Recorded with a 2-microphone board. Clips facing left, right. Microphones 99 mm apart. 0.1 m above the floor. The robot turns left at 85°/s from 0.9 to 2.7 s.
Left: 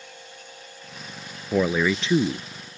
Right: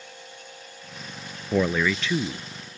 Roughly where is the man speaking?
Behind.